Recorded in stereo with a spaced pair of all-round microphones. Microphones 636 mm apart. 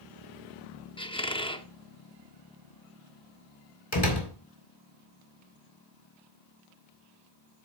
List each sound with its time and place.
1.0 s a squeak: 10° left (ahead or behind), 0.6 m
3.9 s a door slam: 35° left (ahead or behind), 2 m